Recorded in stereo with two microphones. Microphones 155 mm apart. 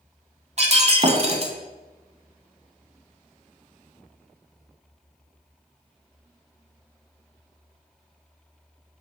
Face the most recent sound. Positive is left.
turn(degrees=-45)  # may be behind; listen again after turning